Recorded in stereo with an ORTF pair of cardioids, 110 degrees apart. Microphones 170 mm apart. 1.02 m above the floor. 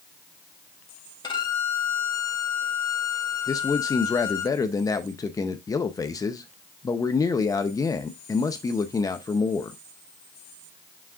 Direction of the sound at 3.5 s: 20° left.